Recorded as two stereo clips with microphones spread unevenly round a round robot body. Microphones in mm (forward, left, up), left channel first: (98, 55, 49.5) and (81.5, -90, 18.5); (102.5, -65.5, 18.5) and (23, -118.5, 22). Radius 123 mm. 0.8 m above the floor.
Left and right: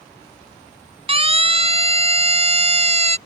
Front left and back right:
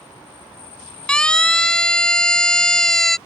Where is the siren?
45° right; by 3.2 s 50° right.